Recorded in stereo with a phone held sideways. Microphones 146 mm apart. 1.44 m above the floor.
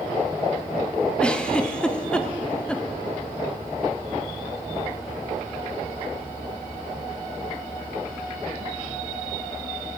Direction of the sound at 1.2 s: 5° left (ahead or behind).